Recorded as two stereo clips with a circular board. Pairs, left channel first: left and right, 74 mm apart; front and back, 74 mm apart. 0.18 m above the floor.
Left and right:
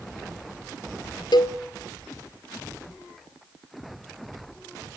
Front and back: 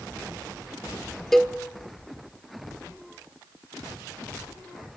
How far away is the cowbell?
About 1.1 m.